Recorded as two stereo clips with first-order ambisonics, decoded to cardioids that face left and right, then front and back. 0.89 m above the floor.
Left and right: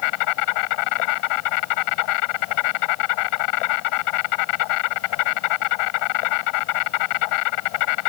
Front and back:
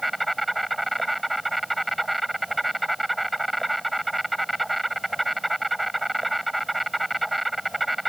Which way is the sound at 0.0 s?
95° left.